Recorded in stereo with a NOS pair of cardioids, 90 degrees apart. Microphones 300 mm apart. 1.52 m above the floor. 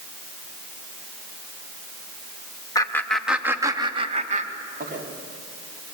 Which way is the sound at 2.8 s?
10° left.